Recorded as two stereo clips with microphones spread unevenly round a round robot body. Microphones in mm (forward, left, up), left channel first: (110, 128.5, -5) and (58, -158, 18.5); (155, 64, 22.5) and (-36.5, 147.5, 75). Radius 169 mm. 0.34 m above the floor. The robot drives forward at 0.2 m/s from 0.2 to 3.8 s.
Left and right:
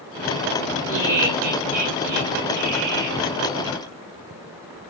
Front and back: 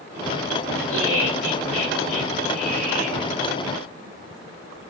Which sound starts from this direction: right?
Laughter, at 0.9 s.